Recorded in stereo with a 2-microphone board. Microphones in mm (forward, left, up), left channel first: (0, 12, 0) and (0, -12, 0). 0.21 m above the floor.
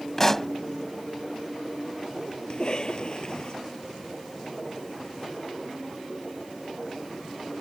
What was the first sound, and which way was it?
A pop, 20° left (ahead or behind).